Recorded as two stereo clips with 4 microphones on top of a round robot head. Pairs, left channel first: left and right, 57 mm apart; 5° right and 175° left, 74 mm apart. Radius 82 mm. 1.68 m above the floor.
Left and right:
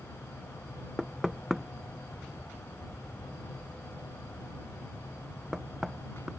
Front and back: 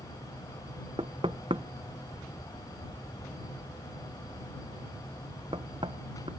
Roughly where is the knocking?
Behind.